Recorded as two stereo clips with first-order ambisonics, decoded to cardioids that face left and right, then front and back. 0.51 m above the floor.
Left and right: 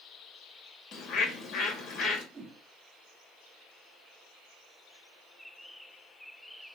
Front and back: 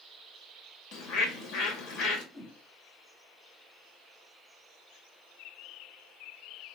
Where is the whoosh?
95° right, 0.9 m.